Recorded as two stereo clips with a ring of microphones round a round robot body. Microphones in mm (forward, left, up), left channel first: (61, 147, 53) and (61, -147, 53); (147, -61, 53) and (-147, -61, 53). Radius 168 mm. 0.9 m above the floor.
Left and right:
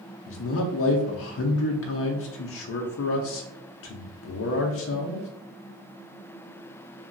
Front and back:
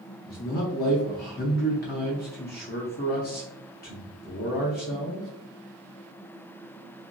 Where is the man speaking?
55° left, 0.5 m.